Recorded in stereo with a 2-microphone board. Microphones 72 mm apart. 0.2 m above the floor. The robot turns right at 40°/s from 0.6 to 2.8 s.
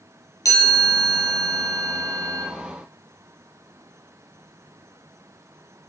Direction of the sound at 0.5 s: 125° left.